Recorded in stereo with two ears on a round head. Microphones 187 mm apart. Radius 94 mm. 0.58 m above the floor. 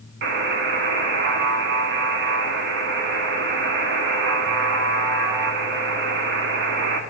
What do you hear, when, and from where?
0.2 s a buzzer: 60° right (ahead or behind), 0.9 m